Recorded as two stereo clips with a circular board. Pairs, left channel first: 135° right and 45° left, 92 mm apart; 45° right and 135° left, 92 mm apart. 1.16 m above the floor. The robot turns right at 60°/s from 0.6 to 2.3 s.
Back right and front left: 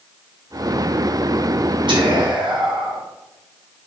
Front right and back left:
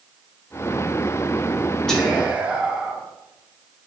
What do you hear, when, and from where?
1.9 s whispering: 35° left, 1.1 m; by 3.0 s 65° left, 1.1 m